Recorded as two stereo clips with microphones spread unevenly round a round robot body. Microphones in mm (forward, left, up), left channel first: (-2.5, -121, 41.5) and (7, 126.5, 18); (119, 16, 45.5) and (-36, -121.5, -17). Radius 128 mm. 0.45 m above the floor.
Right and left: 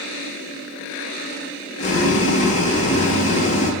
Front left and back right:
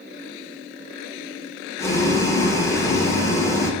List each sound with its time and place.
1.8 s boiling: 50° right, 1.1 m